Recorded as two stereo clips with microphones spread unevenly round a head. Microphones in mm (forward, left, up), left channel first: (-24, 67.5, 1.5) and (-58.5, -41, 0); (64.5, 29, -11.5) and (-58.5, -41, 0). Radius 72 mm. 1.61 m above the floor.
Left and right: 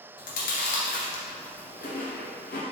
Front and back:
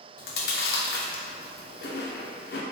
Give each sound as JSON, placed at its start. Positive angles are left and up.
{"t": 0.2, "sound": "chewing", "azimuth_deg": 50, "distance_m": 0.6}